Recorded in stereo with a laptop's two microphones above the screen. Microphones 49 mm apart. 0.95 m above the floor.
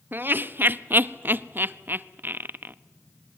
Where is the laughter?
45° right (ahead or behind), 0.8 m.